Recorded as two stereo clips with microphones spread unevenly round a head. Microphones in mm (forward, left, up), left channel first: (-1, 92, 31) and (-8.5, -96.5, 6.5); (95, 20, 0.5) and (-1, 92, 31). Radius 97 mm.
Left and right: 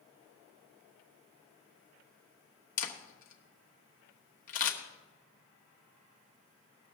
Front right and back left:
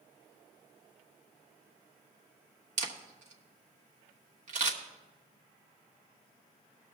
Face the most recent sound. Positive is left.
turn(degrees=135)